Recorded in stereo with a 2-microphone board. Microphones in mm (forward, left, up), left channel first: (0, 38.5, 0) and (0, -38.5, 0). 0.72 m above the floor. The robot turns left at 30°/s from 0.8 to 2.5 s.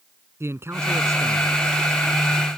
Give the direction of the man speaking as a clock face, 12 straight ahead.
1 o'clock.